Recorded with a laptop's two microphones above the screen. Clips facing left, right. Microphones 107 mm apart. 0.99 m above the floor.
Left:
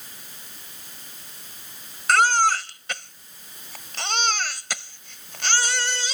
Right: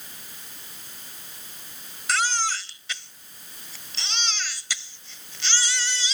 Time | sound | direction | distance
2.1 | a baby crying | 55° left (ahead or behind) | ?